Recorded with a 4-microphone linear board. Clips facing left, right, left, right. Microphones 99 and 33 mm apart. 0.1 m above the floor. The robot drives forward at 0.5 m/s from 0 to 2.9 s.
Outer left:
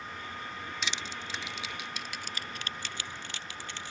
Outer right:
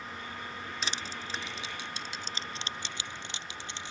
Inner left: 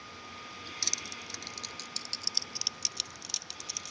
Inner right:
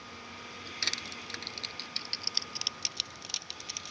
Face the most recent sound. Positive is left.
turn(degrees=-20)  # may be behind; listen again after turning